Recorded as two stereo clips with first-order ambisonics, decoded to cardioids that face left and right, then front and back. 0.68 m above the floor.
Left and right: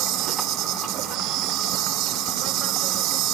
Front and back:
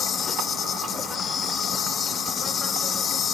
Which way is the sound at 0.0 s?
65° right.